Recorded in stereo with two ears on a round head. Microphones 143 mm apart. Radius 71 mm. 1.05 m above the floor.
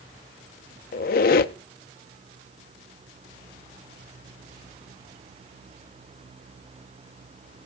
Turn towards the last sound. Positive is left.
turn(degrees=60)  # may be behind; listen again after turning